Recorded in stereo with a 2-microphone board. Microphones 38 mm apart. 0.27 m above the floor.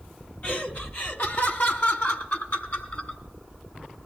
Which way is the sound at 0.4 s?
40° left (ahead or behind).